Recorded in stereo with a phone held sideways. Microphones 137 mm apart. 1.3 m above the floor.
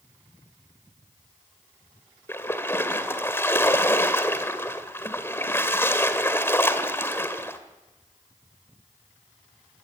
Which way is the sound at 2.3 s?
15° left (ahead or behind).